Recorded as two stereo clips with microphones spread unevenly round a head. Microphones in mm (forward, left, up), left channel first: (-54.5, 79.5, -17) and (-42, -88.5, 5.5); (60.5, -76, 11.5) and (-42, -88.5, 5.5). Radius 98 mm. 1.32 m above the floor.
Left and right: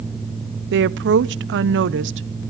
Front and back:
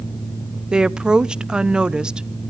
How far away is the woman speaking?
About 0.6 m.